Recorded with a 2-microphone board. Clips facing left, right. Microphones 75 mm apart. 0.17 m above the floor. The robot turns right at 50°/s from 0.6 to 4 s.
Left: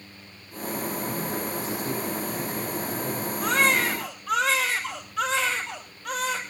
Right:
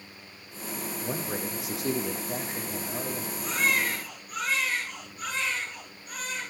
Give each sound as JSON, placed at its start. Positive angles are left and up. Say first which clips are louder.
{"t": 1.0, "sound": "a man speaking", "louder": "left 3 dB", "azimuth_deg": -130, "distance_m": 8.5}
{"t": 3.4, "sound": "a baby crying", "louder": "left 5 dB", "side_deg": 55, "distance_m": 5.5}